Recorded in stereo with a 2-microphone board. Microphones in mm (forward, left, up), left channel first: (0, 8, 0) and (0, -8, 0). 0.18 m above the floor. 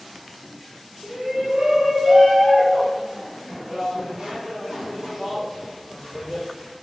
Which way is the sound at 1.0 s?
40° right (ahead or behind).